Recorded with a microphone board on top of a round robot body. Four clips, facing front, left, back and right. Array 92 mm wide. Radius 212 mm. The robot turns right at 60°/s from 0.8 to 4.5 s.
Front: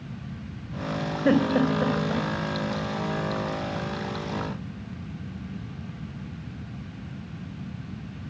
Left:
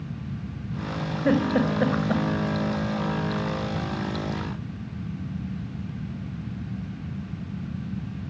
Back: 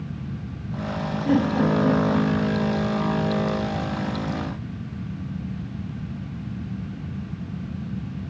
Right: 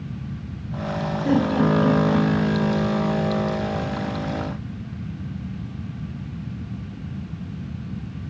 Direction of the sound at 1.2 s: 35° left.